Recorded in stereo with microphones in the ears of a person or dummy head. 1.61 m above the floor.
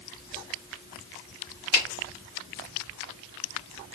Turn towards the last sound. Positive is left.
turn(degrees=30)  # may be behind; listen again after turning